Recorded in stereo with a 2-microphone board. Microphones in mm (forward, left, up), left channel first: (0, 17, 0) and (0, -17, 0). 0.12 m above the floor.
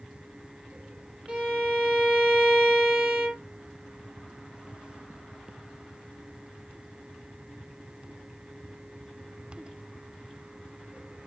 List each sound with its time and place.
1.3 s a violin: 30° right (ahead or behind), 2.5 m